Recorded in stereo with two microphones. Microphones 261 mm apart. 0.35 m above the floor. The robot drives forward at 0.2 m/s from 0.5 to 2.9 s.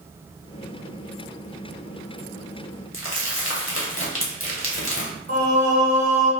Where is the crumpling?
50° left (ahead or behind), 0.9 m.